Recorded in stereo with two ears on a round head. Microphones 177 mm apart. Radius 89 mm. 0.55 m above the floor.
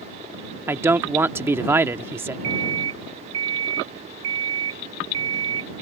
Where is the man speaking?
10° right (ahead or behind).